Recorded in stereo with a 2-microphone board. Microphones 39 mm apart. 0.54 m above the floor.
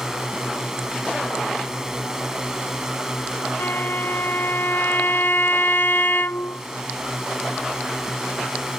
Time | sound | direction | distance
0.0 | a drone | 15° right (ahead or behind) | ?
3.6 | a violin | 70° left (ahead or behind) | ?